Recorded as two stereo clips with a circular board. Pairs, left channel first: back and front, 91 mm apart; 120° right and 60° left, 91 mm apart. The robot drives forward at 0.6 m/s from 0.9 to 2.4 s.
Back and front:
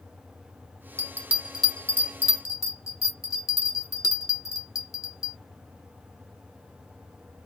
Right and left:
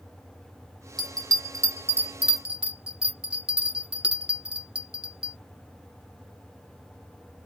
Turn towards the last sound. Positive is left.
turn(degrees=135)